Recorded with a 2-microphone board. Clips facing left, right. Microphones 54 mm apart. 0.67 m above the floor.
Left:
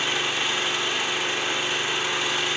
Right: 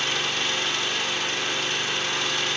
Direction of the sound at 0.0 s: 10° left (ahead or behind).